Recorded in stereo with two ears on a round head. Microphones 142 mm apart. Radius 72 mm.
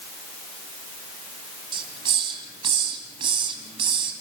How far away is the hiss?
About 2.5 m.